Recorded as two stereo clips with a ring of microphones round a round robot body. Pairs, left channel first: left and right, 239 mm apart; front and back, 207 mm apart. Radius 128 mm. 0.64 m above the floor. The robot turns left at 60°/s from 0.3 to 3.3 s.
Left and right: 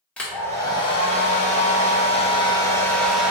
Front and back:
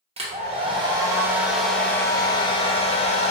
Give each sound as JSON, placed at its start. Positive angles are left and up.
{"t": 0.2, "sound": "a hair dryer", "azimuth_deg": 170, "distance_m": 0.8}